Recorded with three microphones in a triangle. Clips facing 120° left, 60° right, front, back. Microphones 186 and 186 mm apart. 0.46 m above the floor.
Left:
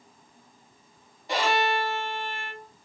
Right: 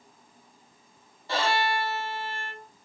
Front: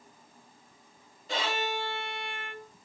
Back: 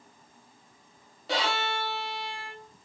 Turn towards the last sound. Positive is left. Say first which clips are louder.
# left 2 dB, back 2 dB
turn(degrees=-165)